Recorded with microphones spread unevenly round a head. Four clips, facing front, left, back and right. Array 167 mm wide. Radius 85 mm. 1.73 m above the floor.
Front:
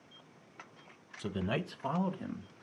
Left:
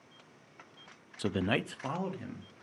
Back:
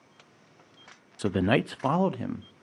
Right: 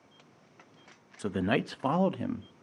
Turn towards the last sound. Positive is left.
turn(degrees=-135)